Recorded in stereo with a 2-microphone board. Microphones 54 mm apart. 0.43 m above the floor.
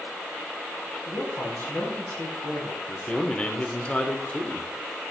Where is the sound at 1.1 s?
60° left (ahead or behind), 3.5 m.